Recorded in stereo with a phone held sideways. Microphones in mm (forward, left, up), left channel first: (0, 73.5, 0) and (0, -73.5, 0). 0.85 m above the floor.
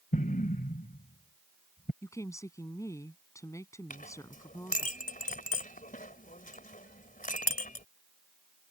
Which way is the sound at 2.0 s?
20° left (ahead or behind).